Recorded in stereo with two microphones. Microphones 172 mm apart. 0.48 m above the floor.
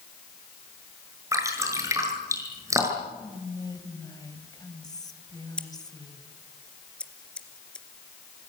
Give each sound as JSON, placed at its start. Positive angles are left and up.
{"t": 1.3, "sound": "dripping", "side_deg": -20, "distance_m": 7.0}
{"t": 3.2, "sound": "whispering", "side_deg": 20, "distance_m": 3.0}
{"t": 5.6, "sound": "scissors", "side_deg": 5, "distance_m": 2.0}